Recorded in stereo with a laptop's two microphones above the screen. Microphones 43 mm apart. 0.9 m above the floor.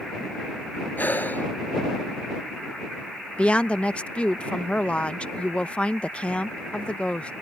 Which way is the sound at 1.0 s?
45° left (ahead or behind).